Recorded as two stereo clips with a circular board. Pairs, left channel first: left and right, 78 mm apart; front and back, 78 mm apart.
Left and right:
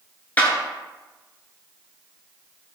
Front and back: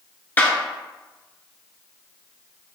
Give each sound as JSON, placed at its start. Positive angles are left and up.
{"t": 0.4, "sound": "a clap", "azimuth_deg": 45, "distance_m": 1.0}